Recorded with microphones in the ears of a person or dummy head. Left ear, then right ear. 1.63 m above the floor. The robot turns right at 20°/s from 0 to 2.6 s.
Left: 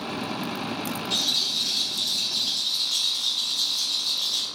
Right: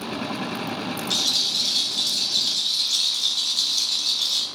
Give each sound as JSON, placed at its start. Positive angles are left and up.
{"t": 1.1, "sound": "a rattle", "azimuth_deg": -80, "distance_m": 1.3}